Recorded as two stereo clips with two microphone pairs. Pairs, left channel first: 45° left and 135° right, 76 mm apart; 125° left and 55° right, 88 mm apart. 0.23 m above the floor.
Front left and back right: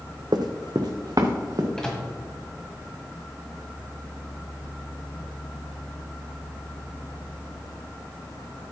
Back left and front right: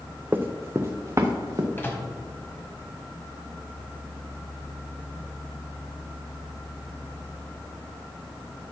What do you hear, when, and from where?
0.3 s running footsteps: 120° right, 0.8 m; by 1.7 s 100° right, 1.6 m
1.8 s a microwave: 115° left, 1.4 m